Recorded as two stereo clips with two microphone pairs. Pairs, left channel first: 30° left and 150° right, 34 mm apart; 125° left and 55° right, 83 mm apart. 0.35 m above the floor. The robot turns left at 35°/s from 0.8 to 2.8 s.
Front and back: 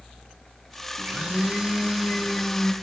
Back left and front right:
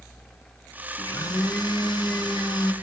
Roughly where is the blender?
Behind.